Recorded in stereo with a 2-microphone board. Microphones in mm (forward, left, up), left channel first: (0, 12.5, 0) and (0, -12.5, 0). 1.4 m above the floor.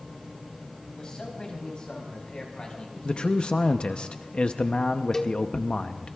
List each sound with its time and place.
1.0 s a man speaking: 35° left (ahead or behind), 4.5 m; by 4.0 s 45° left (ahead or behind), 6.5 m
3.0 s a man speaking: 50° left (ahead or behind), 0.7 m
5.1 s a cowbell: 20° left (ahead or behind), 0.9 m